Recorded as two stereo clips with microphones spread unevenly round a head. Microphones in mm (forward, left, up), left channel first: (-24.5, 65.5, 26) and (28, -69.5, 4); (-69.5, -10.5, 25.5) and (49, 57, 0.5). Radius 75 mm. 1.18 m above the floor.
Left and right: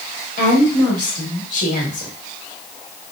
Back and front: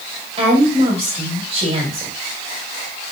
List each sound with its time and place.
0.4 s a woman speaking: 70° left, 2.5 m